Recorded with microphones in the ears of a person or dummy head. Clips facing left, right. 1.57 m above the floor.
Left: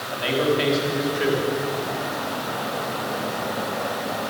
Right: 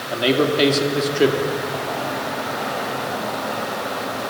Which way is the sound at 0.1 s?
65° right (ahead or behind).